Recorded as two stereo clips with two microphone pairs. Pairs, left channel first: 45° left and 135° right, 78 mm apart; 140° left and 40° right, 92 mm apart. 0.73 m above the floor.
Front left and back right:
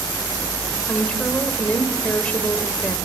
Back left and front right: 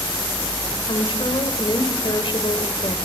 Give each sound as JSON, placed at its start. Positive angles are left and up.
{"t": 0.9, "sound": "a woman speaking", "azimuth_deg": 115, "distance_m": 2.5}